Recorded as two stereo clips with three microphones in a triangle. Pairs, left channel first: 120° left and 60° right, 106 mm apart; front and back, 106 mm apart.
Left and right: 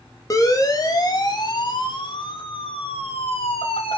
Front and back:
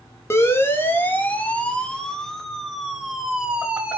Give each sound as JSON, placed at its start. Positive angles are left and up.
{"t": 0.3, "sound": "a siren", "azimuth_deg": 65, "distance_m": 3.0}